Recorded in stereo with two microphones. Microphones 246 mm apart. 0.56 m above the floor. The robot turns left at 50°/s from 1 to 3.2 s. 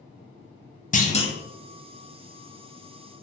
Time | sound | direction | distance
0.9 | a clunk | 35° left (ahead or behind) | 0.5 m